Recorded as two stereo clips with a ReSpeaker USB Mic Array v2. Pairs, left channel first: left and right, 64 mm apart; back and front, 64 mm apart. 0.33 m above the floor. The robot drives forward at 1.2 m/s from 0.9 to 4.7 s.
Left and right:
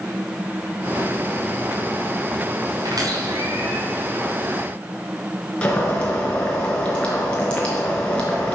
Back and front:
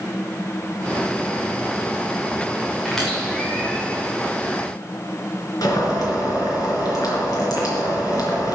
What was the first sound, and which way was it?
A squeak, 95° right.